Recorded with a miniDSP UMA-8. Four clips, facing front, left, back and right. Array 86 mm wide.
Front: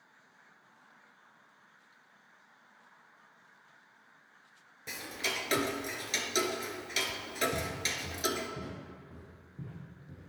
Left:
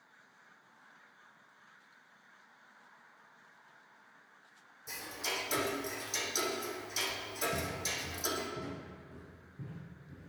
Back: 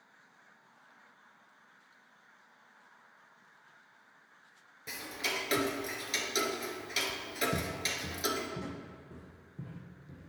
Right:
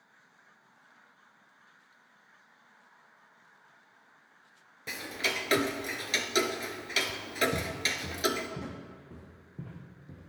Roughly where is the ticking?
Right.